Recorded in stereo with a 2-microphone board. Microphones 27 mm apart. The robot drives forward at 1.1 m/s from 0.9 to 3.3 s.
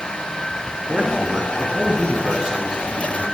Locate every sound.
0.9 s a man speaking: 30° right (ahead or behind), 1.6 m; by 3.2 s 25° right (ahead or behind), 2 m